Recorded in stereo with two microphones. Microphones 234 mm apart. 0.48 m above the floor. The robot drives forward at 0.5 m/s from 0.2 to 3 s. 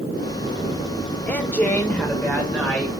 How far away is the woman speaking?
About 1.6 m.